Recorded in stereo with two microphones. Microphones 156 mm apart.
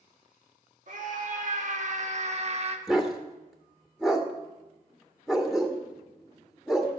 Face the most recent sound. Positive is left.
turn(degrees=0)  # may be behind; listen again after turning